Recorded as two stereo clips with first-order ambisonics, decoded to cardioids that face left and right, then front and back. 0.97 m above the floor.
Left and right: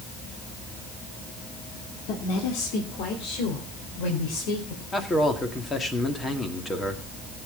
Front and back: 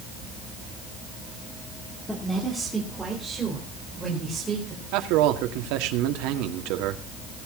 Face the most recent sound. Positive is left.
turn(degrees=165)